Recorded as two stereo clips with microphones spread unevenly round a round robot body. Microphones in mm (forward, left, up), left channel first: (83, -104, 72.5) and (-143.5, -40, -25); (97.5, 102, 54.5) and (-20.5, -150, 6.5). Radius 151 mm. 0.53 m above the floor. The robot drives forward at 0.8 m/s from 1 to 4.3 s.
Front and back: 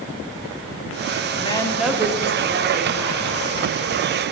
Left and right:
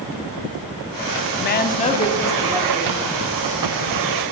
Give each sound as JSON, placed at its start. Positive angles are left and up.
{"t": 1.4, "sound": "a woman speaking", "azimuth_deg": 75, "distance_m": 0.9}